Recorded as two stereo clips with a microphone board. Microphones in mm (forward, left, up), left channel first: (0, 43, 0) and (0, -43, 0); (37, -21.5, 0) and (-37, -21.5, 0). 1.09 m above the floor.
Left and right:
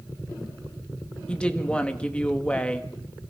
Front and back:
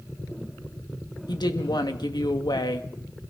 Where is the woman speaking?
15° left, 1.6 m.